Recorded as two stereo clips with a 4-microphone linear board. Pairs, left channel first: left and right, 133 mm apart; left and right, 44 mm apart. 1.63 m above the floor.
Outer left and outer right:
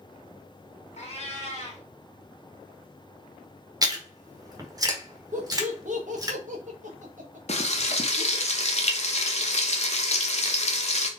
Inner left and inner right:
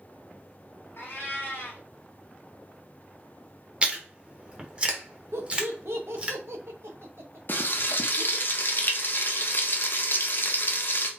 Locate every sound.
1.0 s a cat meowing: 50° left (ahead or behind), 1.3 m
3.8 s chewing: 25° right (ahead or behind), 1.1 m
5.3 s laughter: 70° right (ahead or behind), 1.4 m
7.5 s frying: 55° left (ahead or behind), 0.7 m